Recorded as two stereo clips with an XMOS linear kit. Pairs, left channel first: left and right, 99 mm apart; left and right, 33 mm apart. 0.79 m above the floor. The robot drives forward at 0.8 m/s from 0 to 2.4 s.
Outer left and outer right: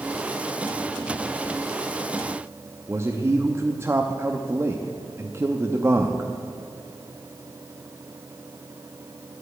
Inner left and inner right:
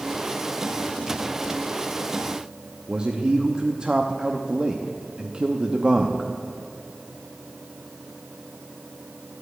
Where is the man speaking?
25° right (ahead or behind), 0.8 m.